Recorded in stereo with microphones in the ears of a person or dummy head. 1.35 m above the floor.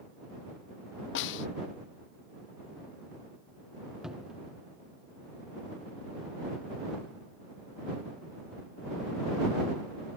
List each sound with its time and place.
1.1 s a snare drum: 65° left (ahead or behind)
4.0 s a cupboard door: 5° right (ahead or behind)